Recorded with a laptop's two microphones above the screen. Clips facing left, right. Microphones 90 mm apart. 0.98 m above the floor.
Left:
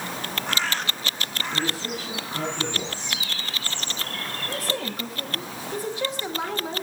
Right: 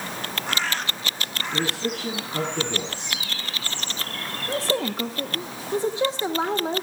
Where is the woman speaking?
30° right (ahead or behind), 0.9 m.